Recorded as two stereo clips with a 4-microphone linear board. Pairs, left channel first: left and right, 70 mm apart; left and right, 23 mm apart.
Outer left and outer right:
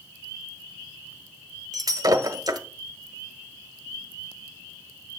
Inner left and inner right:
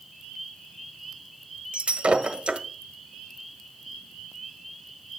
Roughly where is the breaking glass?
Right.